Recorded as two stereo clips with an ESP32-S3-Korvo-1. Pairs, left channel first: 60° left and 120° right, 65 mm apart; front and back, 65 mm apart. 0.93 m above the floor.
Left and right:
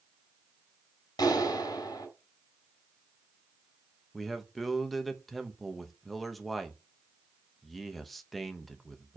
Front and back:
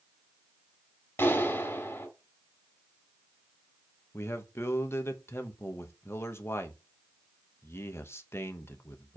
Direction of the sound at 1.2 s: 55° left.